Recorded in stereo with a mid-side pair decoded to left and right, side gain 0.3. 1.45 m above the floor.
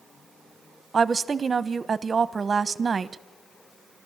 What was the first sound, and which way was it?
A woman speaking, 50° right.